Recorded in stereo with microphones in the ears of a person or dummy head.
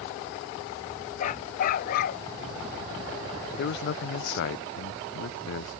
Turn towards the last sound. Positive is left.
turn(degrees=60)  # may be behind; listen again after turning